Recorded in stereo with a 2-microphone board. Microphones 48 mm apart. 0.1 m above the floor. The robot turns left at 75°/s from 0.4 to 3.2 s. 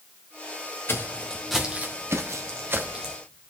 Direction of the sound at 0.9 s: 60° left (ahead or behind).